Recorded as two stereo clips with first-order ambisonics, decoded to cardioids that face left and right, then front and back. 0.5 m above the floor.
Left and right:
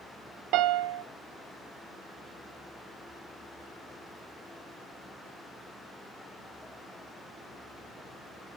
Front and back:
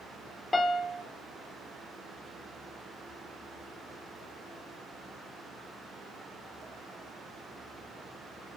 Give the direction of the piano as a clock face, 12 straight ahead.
3 o'clock.